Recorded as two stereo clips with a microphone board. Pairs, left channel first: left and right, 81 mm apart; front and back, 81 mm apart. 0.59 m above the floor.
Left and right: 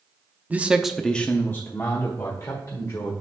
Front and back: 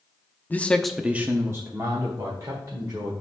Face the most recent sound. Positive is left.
turn(degrees=140)